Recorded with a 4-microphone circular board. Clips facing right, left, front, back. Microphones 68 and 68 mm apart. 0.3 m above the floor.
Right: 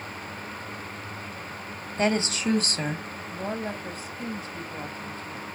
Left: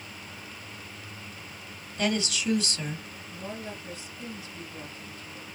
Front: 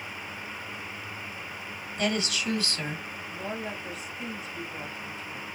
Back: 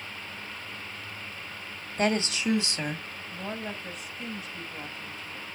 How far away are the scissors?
I don't hear scissors.